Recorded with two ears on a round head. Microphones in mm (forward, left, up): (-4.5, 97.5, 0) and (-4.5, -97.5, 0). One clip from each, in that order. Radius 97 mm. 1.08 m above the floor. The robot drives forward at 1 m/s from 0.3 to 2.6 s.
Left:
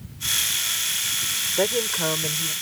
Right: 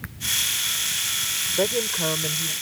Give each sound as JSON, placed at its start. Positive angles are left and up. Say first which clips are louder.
{"t": 1.6, "sound": "a woman speaking", "louder": "left 1 dB", "side_deg": 25}